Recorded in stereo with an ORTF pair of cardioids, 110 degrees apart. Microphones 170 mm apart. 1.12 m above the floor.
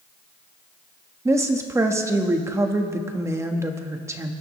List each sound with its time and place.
1.2 s a woman speaking: 15° right, 1.5 m